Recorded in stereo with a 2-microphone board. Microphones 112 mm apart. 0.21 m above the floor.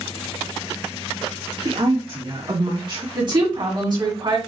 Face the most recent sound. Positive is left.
turn(degrees=-45)  # may be behind; listen again after turning